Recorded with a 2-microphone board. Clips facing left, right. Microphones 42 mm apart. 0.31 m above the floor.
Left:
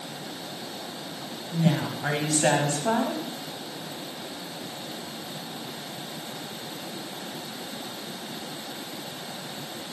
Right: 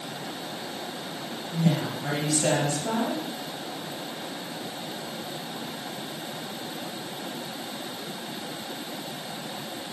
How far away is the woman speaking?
About 1.5 m.